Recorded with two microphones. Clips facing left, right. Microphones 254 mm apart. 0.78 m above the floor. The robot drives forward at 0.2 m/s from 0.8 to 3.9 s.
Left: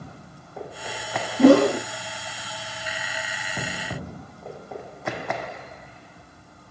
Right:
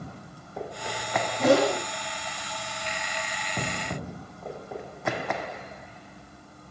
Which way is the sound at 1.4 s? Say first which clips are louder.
Left 8 dB; 55° left (ahead or behind).